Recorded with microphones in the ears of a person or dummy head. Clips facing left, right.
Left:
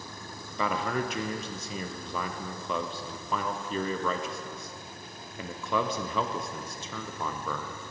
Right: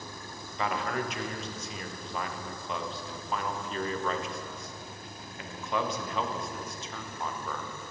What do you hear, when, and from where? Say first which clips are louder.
0.6 s a man speaking: left 2 dB; 80° left, 0.6 m